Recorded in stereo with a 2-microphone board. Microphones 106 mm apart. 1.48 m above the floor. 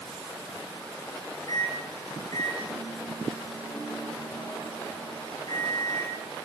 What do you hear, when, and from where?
1.5 s a microwave: 40° left (ahead or behind), 1.4 m